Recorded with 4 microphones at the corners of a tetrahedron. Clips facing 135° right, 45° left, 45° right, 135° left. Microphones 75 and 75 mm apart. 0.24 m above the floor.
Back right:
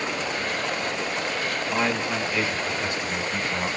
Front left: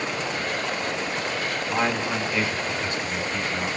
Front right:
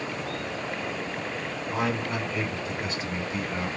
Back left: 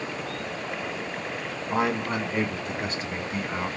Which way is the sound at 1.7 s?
130° left.